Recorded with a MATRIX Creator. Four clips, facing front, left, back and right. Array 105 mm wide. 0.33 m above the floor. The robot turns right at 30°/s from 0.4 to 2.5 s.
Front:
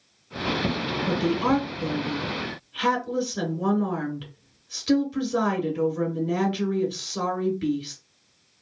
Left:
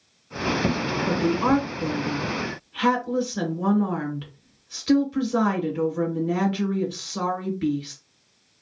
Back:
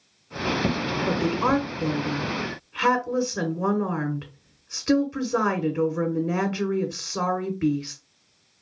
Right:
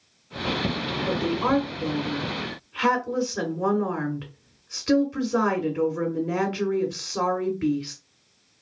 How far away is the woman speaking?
About 1.5 m.